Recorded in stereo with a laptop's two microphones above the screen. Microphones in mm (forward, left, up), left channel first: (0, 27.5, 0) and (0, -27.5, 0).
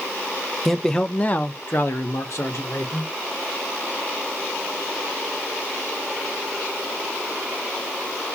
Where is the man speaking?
Centre (ahead or behind), 0.7 m; by 3.1 s 65° left (ahead or behind), 1.0 m.